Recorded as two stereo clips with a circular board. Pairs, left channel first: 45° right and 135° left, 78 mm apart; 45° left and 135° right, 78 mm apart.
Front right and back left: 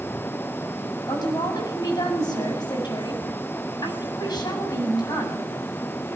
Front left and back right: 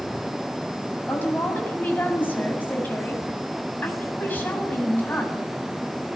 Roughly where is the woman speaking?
Ahead.